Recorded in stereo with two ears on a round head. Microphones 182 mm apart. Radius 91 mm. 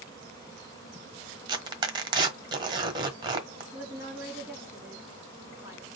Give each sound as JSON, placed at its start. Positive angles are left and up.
{"t": 1.5, "sound": "tearing paper", "side_deg": -20, "distance_m": 1.3}
{"t": 3.7, "sound": "a woman speaking", "side_deg": -15, "distance_m": 2.5}